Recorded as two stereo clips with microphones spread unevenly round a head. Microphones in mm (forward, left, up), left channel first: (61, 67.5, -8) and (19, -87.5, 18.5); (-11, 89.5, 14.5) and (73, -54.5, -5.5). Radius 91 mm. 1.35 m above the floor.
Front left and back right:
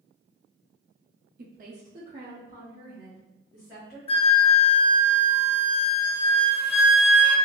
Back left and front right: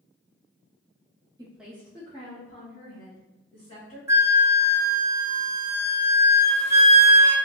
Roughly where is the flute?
Ahead.